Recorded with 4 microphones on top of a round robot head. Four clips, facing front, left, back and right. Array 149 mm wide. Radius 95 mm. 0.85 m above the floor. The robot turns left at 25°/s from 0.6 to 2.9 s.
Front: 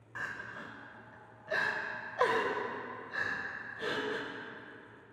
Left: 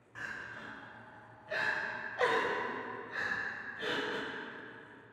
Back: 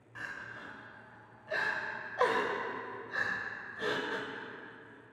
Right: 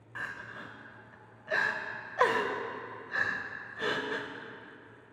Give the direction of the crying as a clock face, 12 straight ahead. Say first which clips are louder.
Right 3 dB, front 2 dB; 2 o'clock.